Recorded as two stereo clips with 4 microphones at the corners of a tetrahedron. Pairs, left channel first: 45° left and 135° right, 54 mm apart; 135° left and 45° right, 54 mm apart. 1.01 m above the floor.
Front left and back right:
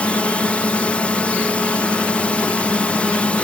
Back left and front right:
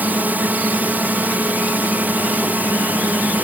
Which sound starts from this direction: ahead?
A drone, at 0.0 s.